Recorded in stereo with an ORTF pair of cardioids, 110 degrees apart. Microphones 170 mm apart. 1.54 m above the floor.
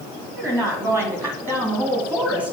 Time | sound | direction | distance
0.4 | a woman speaking | 15° right | 4.5 m